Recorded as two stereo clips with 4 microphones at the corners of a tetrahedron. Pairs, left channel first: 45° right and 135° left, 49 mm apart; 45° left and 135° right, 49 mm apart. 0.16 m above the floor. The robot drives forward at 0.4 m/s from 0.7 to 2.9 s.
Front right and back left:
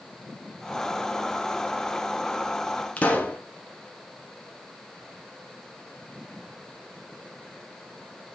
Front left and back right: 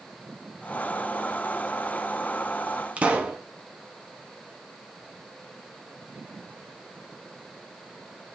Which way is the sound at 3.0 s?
85° right.